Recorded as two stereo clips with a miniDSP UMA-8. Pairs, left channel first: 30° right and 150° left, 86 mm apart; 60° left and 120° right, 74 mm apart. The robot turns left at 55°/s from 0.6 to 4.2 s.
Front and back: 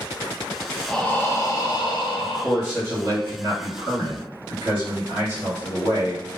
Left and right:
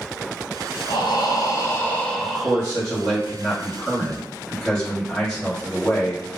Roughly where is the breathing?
Ahead left.